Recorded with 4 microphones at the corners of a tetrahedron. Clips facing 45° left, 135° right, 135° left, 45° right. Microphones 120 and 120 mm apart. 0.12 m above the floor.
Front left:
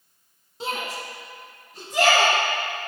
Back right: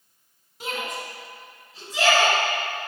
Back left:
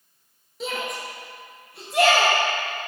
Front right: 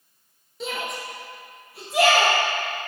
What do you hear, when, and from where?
0.6 s a shout: 45° left, 1.3 m